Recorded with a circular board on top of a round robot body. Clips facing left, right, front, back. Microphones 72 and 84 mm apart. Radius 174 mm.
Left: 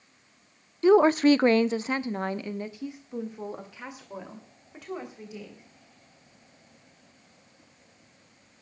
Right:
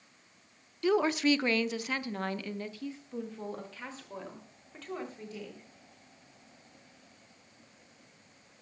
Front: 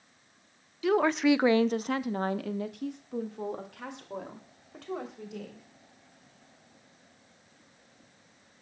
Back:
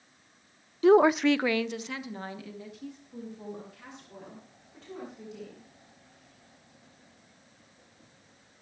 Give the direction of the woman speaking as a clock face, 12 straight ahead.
7 o'clock.